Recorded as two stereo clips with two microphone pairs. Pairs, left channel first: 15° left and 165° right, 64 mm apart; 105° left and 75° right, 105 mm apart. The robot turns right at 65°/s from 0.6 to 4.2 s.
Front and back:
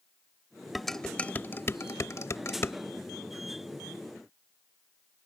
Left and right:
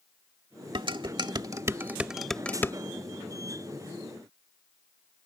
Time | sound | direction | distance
0.8 | dishes clattering | 80° right | ?